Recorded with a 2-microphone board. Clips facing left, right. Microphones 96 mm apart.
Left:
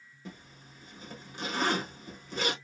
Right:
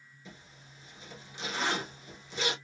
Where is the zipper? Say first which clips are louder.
Left 5 dB; 50° left (ahead or behind), 0.9 m.